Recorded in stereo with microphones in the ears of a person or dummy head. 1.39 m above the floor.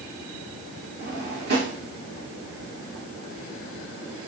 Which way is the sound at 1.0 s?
55° right (ahead or behind).